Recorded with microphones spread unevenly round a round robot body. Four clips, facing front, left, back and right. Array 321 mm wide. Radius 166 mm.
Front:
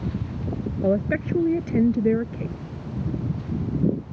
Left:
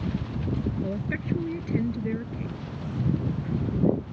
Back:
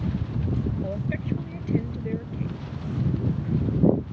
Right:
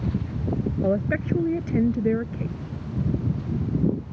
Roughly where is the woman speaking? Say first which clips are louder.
Right 7 dB, front 8 dB; ahead.